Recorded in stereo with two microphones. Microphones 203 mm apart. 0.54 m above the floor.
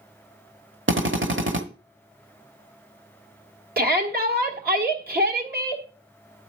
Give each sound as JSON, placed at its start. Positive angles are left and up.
{"t": 0.9, "sound": "a drill", "side_deg": -70, "distance_m": 1.0}
{"t": 3.8, "sound": "a shout", "side_deg": -50, "distance_m": 1.5}